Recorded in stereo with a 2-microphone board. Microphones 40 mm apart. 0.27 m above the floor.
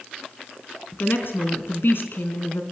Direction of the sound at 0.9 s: 60° left (ahead or behind).